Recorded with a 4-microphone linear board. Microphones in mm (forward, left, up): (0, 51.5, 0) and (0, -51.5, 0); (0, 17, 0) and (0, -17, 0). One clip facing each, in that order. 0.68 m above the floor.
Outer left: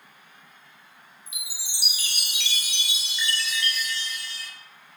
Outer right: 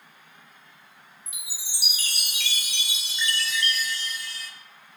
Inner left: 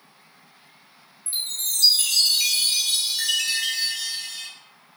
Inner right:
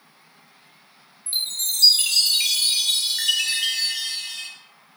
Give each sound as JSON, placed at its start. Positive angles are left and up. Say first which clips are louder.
{"t": 1.3, "sound": "a chime", "louder": "outer left 3 dB, inner right 3 dB", "side_deg": -45, "distance_m": 0.5}